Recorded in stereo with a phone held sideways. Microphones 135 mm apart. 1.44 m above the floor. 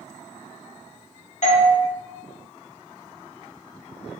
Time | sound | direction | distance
1.4 | a doorbell | 55° left (ahead or behind) | 0.8 m